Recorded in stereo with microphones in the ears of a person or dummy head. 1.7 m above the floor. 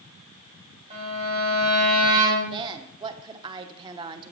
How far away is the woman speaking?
About 1.0 m.